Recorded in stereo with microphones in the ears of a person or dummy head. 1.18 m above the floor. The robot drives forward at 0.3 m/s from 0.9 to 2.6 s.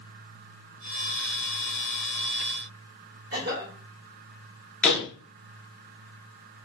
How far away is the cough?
About 1.3 m.